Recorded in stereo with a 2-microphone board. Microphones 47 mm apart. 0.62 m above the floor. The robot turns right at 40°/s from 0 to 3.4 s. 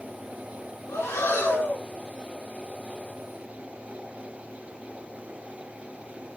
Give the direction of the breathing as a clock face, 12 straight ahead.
9 o'clock.